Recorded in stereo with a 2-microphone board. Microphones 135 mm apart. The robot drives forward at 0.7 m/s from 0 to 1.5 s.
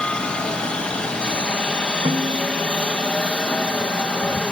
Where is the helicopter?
10° left (ahead or behind).